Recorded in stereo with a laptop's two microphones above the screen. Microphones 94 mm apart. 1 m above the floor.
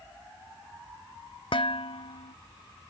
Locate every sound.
1.5 s dishes clattering: 75° left (ahead or behind)